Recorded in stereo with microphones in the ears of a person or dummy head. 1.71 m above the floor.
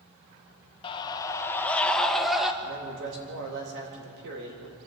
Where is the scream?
30° left (ahead or behind), 1.5 m; by 2.5 s 5° right (ahead or behind), 2.0 m.